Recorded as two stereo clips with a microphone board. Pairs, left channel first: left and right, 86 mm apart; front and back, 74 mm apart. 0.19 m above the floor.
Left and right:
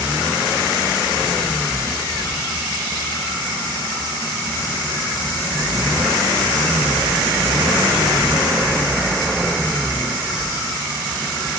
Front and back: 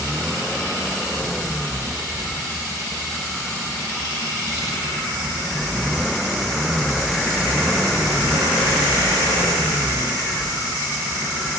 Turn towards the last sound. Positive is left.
No sound to turn to.